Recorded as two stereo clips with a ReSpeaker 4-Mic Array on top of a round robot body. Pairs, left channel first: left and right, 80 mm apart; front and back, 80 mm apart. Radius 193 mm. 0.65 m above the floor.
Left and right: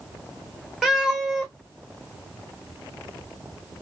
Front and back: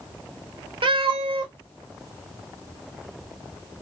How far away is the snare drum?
No snare drum in this recording.